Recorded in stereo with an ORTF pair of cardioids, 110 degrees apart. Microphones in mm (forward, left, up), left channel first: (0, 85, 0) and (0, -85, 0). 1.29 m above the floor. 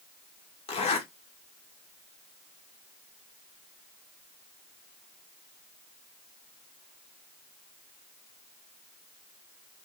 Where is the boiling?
I don't hear boiling.